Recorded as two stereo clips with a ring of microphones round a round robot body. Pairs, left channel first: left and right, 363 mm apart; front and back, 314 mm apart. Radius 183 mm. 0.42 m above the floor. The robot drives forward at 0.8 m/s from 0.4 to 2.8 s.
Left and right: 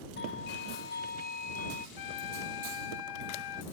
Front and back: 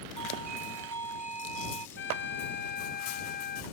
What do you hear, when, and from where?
0.2 s a doorbell: 150° left; by 1.9 s 160° left
2.0 s a trumpet: 55° left; by 3.6 s 60° left